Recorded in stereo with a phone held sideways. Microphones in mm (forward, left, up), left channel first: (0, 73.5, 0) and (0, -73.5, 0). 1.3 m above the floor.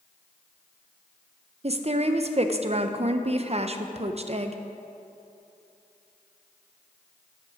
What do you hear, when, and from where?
1.6 s a woman speaking: 45° right (ahead or behind), 0.6 m